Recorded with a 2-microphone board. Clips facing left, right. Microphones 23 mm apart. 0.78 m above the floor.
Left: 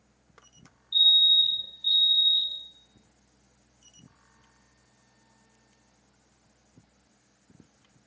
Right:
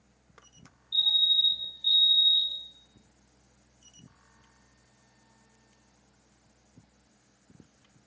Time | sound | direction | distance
0.9 | a fire alarm | 5° left (ahead or behind) | 1.5 m